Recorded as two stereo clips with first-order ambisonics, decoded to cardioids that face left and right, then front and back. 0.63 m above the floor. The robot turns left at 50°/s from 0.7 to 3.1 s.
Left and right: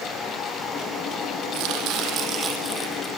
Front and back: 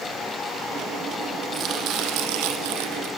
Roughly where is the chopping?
Behind right.